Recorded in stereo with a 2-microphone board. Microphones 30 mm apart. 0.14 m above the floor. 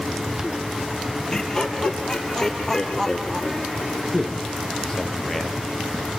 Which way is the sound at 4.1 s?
15° left (ahead or behind).